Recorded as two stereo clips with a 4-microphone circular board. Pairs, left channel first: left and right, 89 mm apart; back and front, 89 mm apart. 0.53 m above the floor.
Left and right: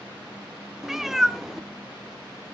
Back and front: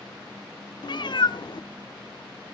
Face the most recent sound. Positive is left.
turn(degrees=-175)